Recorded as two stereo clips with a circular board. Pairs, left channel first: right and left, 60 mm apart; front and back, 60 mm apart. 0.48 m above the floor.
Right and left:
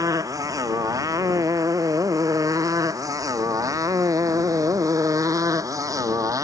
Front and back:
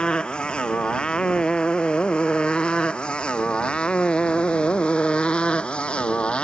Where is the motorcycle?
75° left; by 6.4 s 70° left.